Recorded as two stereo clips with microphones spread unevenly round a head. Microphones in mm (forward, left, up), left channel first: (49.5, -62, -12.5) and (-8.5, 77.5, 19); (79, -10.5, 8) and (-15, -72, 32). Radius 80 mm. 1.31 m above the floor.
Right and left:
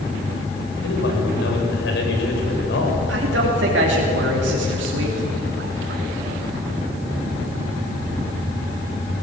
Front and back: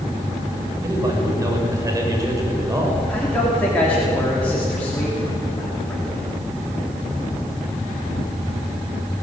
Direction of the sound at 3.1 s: 115° left.